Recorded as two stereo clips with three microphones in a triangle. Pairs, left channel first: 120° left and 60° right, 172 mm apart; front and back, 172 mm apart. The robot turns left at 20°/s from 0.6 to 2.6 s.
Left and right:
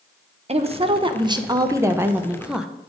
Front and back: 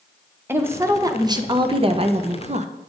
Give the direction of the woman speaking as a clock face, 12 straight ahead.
4 o'clock.